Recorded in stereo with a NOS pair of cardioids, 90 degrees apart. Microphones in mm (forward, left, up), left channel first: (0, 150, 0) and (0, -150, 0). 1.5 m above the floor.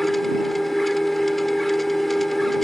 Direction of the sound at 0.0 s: Straight ahead.